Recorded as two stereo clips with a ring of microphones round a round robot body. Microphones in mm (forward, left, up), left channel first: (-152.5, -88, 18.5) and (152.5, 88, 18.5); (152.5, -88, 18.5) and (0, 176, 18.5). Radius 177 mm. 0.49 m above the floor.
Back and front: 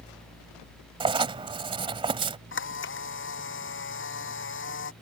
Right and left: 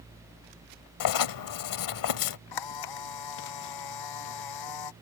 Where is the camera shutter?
90° right.